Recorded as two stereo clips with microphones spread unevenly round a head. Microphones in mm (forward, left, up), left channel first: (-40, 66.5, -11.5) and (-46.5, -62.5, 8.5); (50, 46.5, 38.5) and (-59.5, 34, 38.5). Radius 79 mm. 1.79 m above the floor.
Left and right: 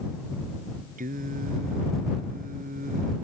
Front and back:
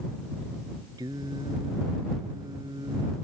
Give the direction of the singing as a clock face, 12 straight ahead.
4 o'clock.